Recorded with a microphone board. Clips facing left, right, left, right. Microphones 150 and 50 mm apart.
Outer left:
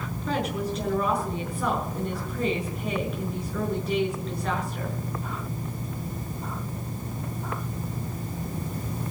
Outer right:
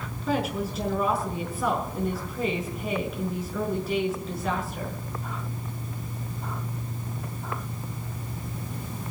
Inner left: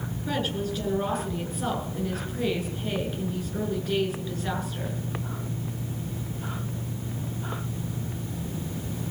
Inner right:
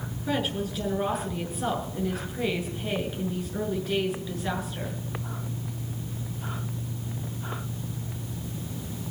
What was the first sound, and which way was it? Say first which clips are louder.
A woman speaking: outer right 1 dB, inner right 1 dB; 5° right (ahead or behind).